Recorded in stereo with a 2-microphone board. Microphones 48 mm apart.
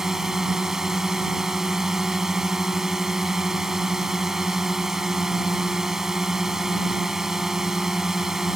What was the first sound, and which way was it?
A drone, 10° right (ahead or behind).